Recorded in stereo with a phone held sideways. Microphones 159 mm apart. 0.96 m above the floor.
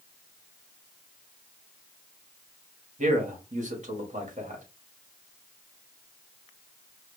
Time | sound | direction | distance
3.0 | a man speaking | 55° right (ahead or behind) | 1.9 m